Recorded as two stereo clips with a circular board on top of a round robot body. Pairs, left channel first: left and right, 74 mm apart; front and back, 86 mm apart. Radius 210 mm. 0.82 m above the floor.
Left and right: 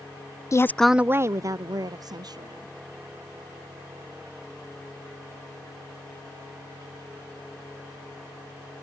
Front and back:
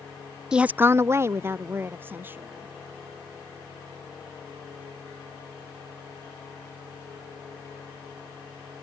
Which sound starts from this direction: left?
A woman speaking, at 0.5 s.